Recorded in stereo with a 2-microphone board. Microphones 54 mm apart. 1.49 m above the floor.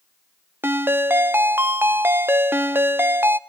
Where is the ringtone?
45° right (ahead or behind), 0.5 m.